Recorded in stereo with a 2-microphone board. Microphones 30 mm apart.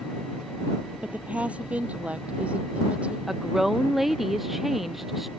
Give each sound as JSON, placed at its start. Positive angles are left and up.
{"t": 1.0, "sound": "a woman speaking", "side_deg": -50}
{"t": 3.3, "sound": "a woman speaking", "side_deg": -10}